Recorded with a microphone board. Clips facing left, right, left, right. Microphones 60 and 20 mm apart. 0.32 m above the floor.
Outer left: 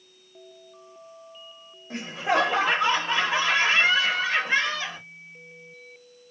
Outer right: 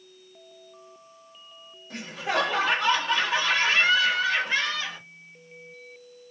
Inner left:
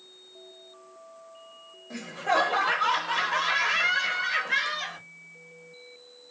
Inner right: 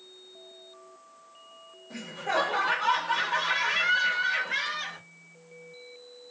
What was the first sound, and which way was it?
Laughter, 25° left (ahead or behind).